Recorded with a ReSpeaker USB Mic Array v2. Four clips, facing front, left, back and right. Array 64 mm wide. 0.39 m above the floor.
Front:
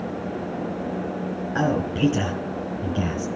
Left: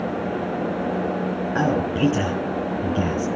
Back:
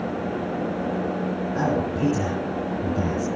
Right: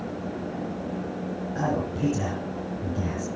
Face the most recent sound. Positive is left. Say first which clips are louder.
# left 6 dB, front 2 dB
turn(degrees=65)